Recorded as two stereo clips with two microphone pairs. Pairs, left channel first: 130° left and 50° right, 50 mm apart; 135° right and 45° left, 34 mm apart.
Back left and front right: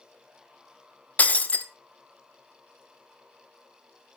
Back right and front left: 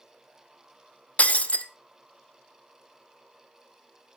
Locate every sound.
1.2 s breaking glass: 170° right, 0.9 m